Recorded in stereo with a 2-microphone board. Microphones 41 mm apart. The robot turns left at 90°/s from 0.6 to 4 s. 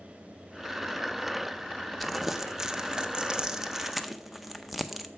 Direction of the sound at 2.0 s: Centre (ahead or behind).